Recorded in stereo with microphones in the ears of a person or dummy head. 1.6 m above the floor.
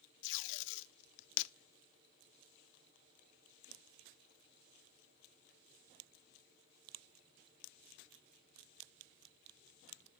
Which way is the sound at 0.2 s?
65° left (ahead or behind).